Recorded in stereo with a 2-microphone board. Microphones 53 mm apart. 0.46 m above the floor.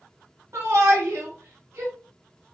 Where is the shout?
60° right (ahead or behind), 1.9 m.